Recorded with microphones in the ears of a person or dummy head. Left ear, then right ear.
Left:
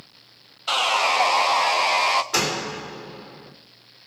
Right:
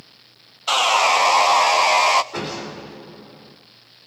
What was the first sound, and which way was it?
Sawing, 15° right (ahead or behind).